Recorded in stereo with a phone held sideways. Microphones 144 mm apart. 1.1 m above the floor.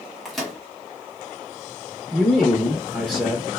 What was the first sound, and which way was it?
A microwave, centre (ahead or behind).